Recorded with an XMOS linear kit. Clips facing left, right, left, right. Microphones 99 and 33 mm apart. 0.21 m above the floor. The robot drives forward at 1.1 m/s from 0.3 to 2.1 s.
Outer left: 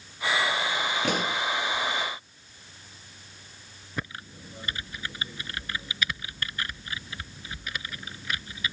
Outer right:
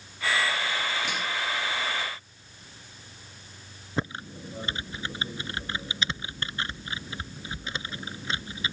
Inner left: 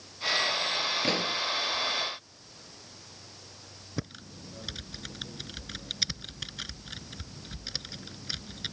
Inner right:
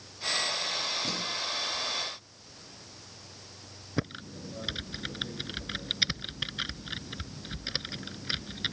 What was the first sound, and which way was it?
A pop, 55° left (ahead or behind).